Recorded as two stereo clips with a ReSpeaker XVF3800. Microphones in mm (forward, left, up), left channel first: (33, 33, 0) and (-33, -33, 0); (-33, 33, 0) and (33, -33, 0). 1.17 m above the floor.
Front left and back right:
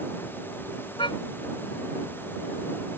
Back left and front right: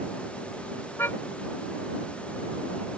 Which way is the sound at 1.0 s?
70° left.